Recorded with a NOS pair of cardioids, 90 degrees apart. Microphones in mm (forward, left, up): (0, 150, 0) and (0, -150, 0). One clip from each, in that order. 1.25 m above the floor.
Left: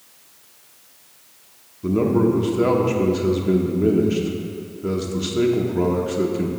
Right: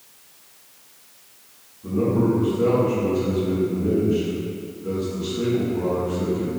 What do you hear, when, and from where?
1.8 s a man speaking: 70° left, 1.0 m